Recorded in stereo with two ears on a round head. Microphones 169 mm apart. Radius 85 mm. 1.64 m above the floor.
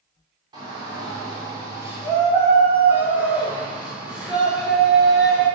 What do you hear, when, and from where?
0.5 s a shout: 25° right (ahead or behind), 5.5 m; by 5.5 s centre (ahead or behind), 6.5 m